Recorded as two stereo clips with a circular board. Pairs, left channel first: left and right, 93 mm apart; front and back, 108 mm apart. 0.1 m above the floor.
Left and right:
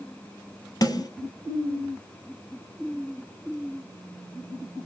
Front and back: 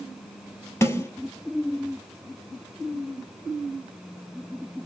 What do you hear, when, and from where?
0.8 s a snare drum: 60° left, 1.4 m